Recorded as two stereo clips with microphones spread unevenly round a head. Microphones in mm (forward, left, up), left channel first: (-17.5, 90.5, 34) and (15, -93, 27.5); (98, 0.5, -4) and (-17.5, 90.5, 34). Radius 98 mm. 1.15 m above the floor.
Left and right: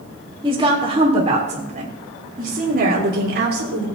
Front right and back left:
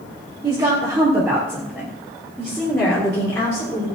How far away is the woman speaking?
About 4 m.